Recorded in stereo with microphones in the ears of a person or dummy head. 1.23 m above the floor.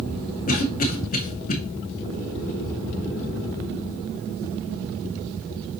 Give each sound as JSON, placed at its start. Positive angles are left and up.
{"t": 0.5, "sound": "a cough", "side_deg": 45, "distance_m": 1.1}